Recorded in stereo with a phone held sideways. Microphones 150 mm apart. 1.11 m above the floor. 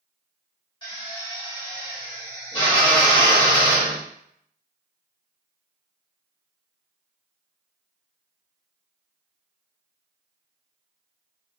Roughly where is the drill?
Left.